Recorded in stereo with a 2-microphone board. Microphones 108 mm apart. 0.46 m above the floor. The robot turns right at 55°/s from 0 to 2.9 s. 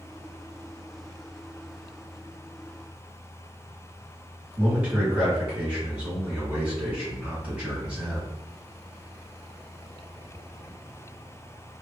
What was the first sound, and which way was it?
A man speaking, 15° right (ahead or behind).